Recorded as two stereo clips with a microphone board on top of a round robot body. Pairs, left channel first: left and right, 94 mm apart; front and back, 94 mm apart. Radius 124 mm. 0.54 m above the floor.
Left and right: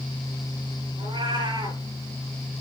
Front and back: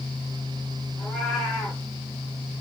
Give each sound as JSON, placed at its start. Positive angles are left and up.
{"t": 1.0, "sound": "a cat meowing", "azimuth_deg": -95, "distance_m": 5.0}